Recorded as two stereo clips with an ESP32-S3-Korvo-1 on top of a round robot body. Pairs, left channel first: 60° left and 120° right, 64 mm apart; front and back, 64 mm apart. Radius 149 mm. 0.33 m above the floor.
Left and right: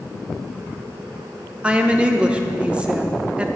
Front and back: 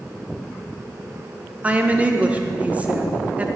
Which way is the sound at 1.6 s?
160° right.